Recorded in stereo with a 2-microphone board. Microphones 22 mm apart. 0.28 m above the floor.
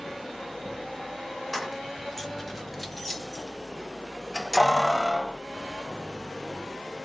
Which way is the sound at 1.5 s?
5° left (ahead or behind).